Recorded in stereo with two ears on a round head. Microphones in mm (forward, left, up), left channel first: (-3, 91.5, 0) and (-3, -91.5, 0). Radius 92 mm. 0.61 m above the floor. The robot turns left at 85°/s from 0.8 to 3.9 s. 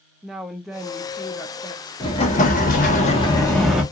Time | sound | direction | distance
0.2 | a woman speaking | centre (ahead or behind) | 0.6 m
2.0 | an explosion | 145° left | 0.9 m